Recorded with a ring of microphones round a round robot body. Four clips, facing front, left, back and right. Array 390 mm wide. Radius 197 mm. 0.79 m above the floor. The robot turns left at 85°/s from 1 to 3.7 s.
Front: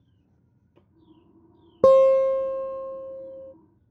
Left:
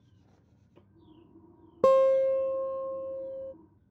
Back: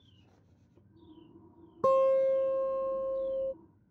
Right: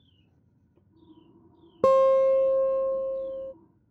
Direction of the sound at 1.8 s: 10° right.